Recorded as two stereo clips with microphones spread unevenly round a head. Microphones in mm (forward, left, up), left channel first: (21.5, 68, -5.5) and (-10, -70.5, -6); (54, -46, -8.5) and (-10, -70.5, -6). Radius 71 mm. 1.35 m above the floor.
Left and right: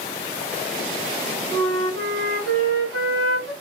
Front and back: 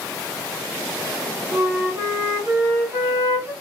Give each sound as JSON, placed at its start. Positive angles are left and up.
{"t": 1.5, "sound": "a flute", "azimuth_deg": -120, "distance_m": 2.0}